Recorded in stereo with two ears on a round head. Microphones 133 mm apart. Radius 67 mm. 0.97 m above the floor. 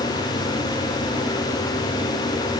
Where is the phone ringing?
No phone ringing in this recording.